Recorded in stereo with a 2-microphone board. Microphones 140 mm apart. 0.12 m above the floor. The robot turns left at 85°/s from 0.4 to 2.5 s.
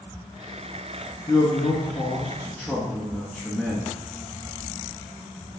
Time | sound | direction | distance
1.3 | a man speaking | 25° left (ahead or behind) | 1.1 m